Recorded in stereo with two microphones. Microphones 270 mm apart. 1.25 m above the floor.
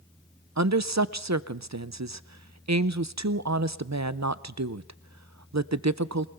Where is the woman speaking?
80° right, 0.6 m.